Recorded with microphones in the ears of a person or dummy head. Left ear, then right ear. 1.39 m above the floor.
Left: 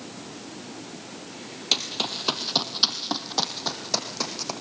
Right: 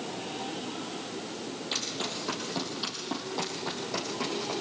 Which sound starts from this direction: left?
Running footsteps, at 1.7 s.